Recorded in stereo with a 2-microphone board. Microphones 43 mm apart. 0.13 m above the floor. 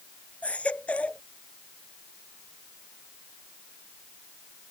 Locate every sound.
0.4 s a baby crying: 30° left (ahead or behind)